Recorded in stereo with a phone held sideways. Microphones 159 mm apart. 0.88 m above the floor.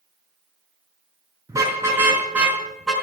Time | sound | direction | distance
1.5 | a car horn | 20° right (ahead or behind) | 4.5 m